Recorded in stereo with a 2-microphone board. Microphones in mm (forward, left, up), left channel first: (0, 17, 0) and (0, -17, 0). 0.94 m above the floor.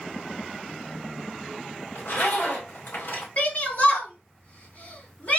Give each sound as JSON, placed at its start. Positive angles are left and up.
{"t": 1.9, "sound": "a zipper", "side_deg": 60, "distance_m": 3.0}
{"t": 3.4, "sound": "a shout", "side_deg": 45, "distance_m": 2.5}